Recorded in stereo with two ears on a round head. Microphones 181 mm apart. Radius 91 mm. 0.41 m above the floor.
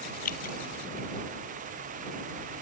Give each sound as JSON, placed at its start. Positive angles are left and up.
{"t": 0.2, "sound": "dripping", "side_deg": 40}